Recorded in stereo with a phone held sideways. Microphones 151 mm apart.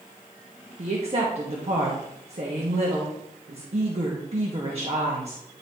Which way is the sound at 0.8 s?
45° right (ahead or behind).